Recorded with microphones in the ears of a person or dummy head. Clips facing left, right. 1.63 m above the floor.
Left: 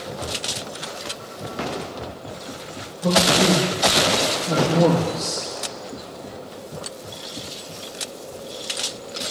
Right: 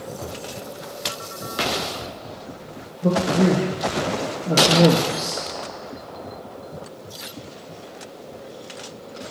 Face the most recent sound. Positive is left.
turn(degrees=-15)  # may be behind; listen again after turning